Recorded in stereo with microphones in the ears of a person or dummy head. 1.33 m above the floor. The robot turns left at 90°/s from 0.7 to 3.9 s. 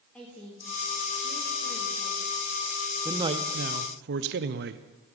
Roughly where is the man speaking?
Ahead.